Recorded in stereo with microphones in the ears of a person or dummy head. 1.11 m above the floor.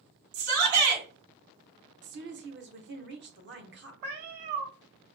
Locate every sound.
0.3 s a shout: 85° right, 3 m
2.0 s a woman speaking: 55° right (ahead or behind), 1.1 m
4.0 s a cat meowing: 55° right (ahead or behind), 1.4 m